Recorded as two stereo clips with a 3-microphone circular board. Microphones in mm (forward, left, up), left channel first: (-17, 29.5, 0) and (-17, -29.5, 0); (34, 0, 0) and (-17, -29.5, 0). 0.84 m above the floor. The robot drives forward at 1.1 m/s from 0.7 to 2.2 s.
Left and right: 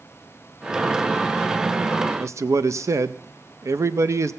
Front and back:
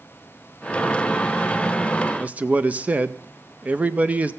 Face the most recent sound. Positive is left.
turn(degrees=-90)